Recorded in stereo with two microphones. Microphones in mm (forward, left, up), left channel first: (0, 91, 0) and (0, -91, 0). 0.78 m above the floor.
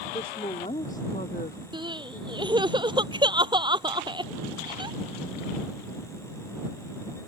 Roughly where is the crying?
Right.